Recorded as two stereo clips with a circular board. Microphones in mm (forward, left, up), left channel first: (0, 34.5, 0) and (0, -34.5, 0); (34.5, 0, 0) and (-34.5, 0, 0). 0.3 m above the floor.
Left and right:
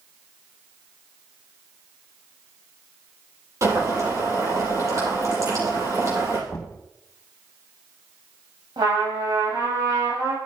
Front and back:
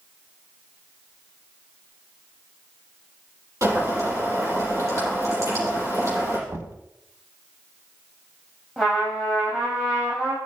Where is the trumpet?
95° right, 7 m.